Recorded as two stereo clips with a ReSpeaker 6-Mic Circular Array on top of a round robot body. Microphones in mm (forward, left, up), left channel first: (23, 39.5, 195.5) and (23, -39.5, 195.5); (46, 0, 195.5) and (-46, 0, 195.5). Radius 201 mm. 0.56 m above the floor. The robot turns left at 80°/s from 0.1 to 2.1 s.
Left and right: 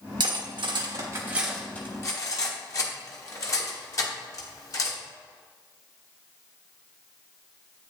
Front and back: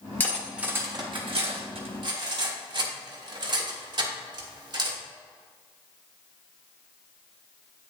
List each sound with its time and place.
0.2 s cutlery clinking: 70° right, 1.5 m; by 5.0 s 140° left, 1.5 m